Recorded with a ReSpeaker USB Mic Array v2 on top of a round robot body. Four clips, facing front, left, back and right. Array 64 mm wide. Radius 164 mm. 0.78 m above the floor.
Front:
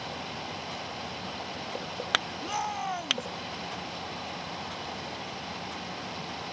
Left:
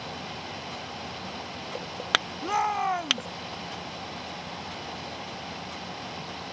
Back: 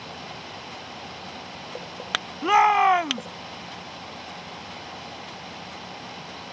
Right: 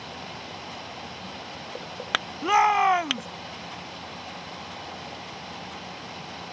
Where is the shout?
150° right.